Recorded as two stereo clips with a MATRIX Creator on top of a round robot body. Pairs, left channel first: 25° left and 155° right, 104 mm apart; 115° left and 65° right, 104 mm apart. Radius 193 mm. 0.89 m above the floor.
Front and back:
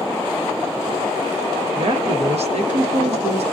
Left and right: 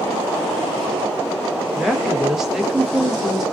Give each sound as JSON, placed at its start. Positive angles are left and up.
{"t": 1.8, "sound": "a woman speaking", "azimuth_deg": -155, "distance_m": 1.0}